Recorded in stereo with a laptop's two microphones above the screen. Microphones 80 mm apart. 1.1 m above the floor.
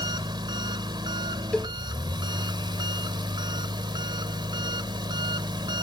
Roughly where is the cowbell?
Centre.